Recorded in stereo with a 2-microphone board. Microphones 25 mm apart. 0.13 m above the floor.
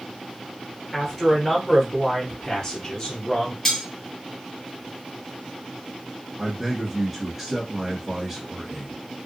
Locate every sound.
0.9 s a man speaking: 5° right (ahead or behind), 1.8 m; by 3.5 s 30° left (ahead or behind), 1.3 m
3.6 s cutlery clinking: 15° left (ahead or behind), 1.5 m
6.4 s a man speaking: 15° right (ahead or behind), 1.5 m